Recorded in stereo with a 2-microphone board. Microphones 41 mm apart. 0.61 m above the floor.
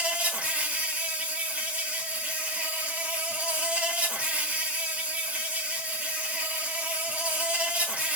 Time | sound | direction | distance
0.0 | an insect | 30° right (ahead or behind) | 1.4 m